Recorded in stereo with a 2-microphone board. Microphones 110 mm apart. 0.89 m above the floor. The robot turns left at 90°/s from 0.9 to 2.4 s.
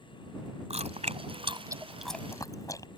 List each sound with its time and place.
0.7 s chewing: 75° right (ahead or behind); by 2.9 s 30° left (ahead or behind)